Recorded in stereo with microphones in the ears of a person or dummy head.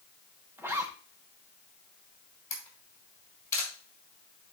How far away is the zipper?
About 1.0 m.